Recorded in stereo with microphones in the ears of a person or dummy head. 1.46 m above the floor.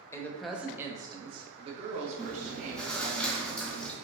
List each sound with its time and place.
0.1 s a woman speaking: 15° left (ahead or behind), 0.6 m; by 3.2 s 50° right (ahead or behind), 1.9 m
2.2 s chewing: 5° left (ahead or behind), 0.7 m